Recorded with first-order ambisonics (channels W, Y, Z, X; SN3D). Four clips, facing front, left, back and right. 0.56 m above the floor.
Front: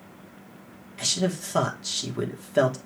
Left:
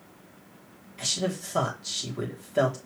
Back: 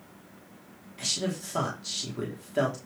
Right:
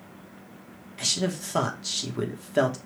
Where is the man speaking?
50° right, 1.1 m.